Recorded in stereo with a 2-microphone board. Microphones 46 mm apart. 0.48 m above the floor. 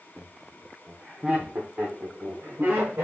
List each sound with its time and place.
0.2 s laughter: 15° left (ahead or behind), 0.8 m; by 3.0 s 60° right (ahead or behind), 1.4 m